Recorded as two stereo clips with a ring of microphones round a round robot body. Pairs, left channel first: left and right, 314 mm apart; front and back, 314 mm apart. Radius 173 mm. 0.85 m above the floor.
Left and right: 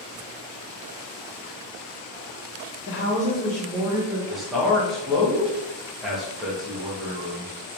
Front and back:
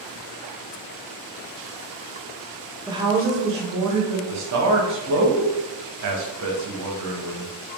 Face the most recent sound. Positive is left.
turn(degrees=180)